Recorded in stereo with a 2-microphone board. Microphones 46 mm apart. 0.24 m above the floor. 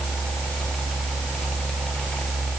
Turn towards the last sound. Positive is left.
No sound to turn to.